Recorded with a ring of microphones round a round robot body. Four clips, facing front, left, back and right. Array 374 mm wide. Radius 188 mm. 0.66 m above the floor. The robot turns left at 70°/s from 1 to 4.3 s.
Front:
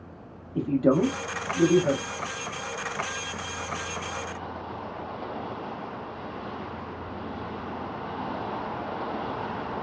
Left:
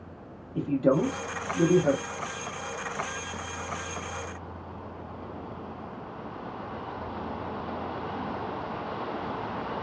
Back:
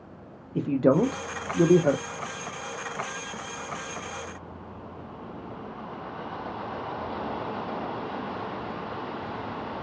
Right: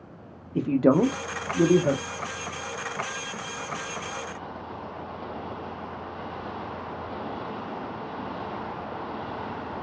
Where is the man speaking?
120° right, 0.6 m; by 2.0 s 165° left, 0.6 m.